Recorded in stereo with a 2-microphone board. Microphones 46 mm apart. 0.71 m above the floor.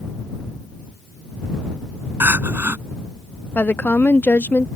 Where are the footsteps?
I don't hear footsteps.